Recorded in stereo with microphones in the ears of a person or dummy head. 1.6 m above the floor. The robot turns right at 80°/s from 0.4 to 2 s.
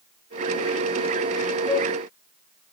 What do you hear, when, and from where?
1.7 s a flute: 10° right (ahead or behind), 0.7 m; by 1.9 s 5° left (ahead or behind), 0.7 m